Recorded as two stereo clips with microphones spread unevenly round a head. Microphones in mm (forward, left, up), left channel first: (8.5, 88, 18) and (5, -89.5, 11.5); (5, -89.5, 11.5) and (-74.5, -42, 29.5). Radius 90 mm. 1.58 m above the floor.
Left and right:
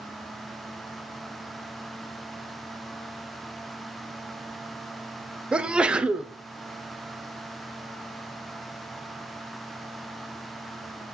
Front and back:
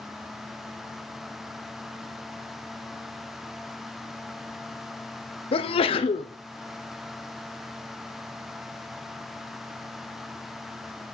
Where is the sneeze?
5° right, 0.7 m.